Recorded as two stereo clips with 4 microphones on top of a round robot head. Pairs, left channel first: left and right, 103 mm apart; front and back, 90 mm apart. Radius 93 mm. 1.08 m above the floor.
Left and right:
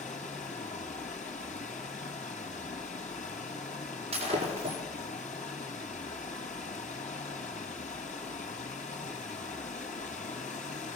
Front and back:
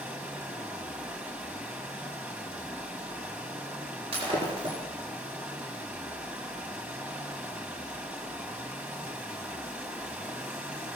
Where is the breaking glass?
135° right, 4 m.